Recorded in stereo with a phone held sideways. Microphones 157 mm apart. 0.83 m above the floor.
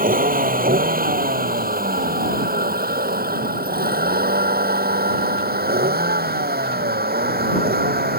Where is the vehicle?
65° right (ahead or behind); by 8.2 s 80° right.